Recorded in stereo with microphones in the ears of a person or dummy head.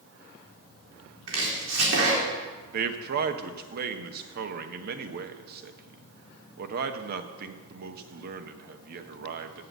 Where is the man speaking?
55° right (ahead or behind), 0.9 m.